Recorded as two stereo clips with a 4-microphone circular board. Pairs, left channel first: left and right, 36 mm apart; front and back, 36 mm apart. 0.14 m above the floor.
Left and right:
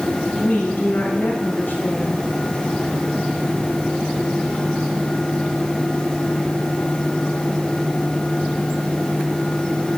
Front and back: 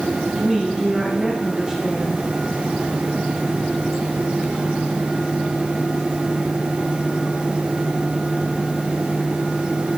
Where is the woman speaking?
110° left, 5.5 m.